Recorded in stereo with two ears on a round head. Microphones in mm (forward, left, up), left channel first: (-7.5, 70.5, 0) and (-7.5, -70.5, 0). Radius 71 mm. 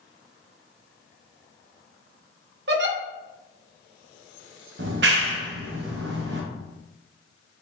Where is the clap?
70° right (ahead or behind), 0.7 m.